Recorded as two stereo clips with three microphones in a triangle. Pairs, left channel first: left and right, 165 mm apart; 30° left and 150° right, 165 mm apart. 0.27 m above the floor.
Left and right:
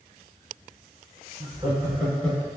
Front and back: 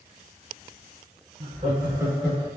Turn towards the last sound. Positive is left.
turn(degrees=45)